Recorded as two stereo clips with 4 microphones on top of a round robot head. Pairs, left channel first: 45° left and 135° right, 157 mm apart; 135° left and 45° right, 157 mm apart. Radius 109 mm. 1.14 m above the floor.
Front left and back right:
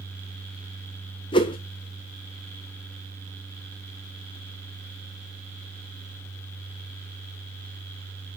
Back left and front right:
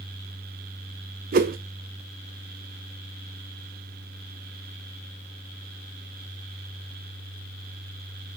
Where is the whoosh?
15° right, 0.5 m.